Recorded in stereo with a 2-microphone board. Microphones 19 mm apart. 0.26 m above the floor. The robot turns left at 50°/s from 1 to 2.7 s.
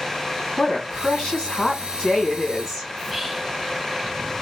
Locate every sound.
0.6 s a woman speaking: 90° left, 1.7 m; by 2.9 s 5° left, 1.7 m
3.0 s whispering: 15° right (ahead or behind), 1.1 m